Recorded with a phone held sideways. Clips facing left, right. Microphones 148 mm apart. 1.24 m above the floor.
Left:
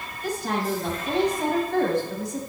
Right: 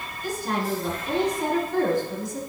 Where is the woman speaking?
70° left (ahead or behind), 7.5 m.